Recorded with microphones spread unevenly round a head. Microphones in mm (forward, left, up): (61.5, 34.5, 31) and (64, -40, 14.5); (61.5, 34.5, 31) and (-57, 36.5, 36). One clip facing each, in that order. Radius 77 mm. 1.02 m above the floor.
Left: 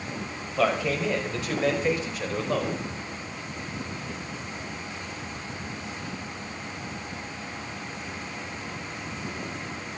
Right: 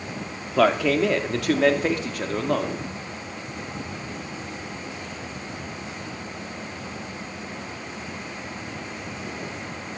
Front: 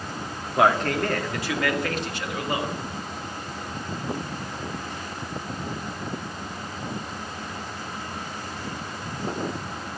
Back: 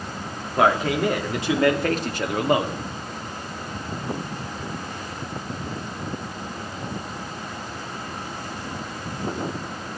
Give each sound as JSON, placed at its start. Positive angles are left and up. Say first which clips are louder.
{"t": 0.6, "sound": "a man speaking", "louder": "right 6 dB, back 1 dB", "azimuth_deg": -90, "distance_m": 2.5}